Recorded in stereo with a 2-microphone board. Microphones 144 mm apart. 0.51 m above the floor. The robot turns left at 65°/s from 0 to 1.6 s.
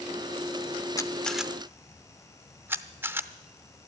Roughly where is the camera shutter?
Left.